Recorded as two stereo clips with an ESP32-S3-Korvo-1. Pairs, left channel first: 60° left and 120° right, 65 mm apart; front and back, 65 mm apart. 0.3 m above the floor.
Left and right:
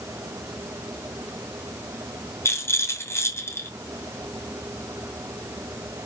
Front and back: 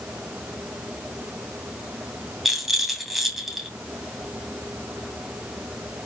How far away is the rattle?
About 2.5 m.